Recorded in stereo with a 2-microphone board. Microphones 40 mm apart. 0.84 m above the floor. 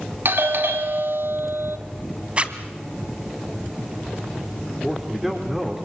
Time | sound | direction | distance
0.2 | a doorbell | 60° right (ahead or behind) | 1.9 m
2.4 | a zipper | 30° right (ahead or behind) | 2.0 m
4.8 | a man speaking | 5° right (ahead or behind) | 3 m